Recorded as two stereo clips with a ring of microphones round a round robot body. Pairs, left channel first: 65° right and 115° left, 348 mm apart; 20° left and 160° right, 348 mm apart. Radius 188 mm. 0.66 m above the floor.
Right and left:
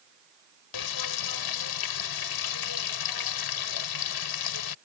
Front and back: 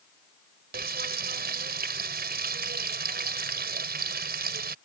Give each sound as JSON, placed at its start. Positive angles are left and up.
{"t": 0.7, "sound": "frying", "azimuth_deg": -95}